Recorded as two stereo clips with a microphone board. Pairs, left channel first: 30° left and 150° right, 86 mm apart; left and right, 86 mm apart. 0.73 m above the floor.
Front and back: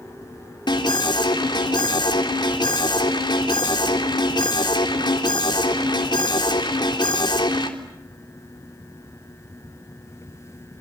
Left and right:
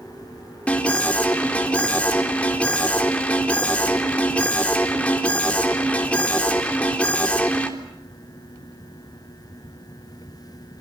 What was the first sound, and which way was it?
An alarm, 15° left.